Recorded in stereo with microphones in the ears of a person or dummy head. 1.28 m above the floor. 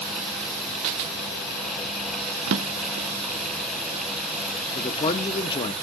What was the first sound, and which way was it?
A drawer, 65° right (ahead or behind).